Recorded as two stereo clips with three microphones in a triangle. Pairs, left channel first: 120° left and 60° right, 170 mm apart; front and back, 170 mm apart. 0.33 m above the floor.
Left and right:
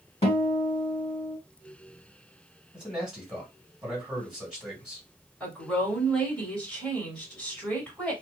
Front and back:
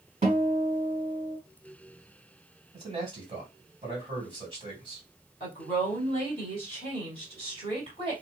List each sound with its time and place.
0.2 s a guitar: 155° left, 1.8 m
2.7 s a man speaking: 145° right, 1.8 m
5.4 s a woman speaking: 160° right, 1.9 m